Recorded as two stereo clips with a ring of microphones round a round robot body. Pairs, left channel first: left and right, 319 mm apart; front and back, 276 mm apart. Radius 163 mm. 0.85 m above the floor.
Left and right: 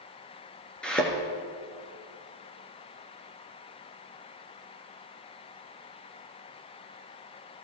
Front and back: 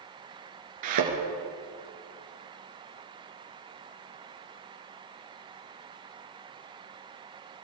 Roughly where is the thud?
Behind.